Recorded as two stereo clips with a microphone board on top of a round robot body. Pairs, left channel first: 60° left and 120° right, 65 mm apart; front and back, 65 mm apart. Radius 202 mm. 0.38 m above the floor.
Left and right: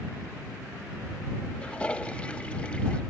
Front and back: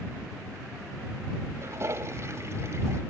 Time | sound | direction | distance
1.6 | a toilet flushing | 135° left | ?